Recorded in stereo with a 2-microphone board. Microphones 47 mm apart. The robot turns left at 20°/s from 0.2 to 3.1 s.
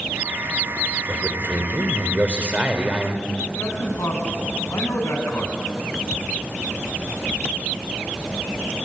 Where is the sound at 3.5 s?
85° left, 5.5 m.